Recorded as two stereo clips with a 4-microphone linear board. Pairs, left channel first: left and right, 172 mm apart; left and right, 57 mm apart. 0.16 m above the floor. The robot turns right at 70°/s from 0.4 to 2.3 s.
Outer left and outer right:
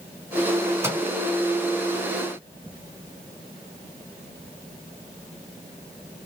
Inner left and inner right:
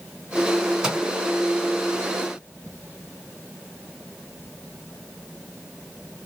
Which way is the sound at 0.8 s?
15° right (ahead or behind).